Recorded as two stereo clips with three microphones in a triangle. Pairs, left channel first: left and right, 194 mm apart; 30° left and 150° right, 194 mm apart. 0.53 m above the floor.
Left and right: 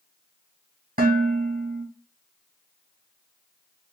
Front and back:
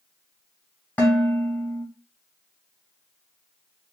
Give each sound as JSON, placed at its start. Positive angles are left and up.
{"t": 1.0, "sound": "dishes clattering", "azimuth_deg": -55, "distance_m": 2.0}